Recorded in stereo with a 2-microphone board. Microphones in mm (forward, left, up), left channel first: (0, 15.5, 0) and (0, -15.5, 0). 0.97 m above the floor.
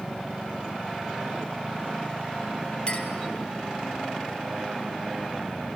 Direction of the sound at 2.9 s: 30° left (ahead or behind).